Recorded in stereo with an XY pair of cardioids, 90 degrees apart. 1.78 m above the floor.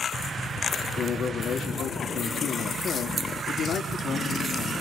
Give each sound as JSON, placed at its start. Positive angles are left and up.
{"t": 1.0, "sound": "a man speaking", "azimuth_deg": 65, "distance_m": 4.0}